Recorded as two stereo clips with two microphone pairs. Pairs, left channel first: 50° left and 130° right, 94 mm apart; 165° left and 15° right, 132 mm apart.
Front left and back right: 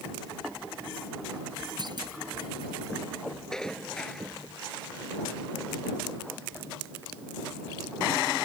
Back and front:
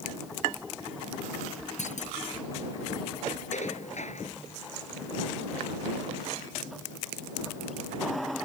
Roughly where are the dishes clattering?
Behind left.